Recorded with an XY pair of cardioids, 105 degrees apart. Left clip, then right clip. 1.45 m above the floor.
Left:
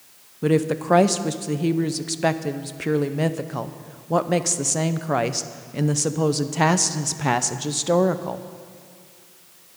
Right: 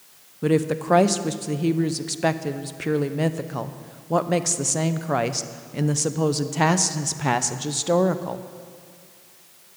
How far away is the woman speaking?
About 0.6 m.